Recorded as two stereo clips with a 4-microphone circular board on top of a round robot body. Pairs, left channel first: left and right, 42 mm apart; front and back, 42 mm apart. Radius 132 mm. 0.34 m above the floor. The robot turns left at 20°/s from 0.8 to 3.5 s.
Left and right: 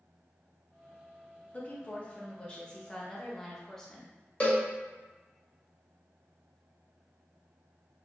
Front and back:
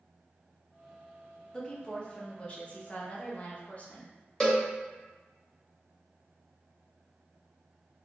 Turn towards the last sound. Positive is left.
turn(degrees=60)